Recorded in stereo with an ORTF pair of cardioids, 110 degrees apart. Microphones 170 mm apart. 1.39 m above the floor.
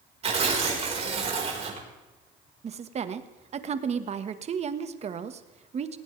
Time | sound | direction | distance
0.2 | tearing paper | 40° right | 4.5 m
2.6 | a woman speaking | 40° right | 1.5 m